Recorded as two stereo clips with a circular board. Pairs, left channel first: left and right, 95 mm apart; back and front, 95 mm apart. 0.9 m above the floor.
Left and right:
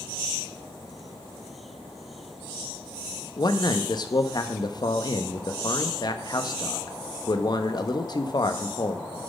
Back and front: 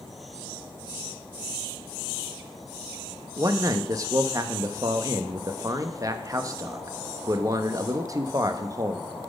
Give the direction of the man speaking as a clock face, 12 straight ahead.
10 o'clock.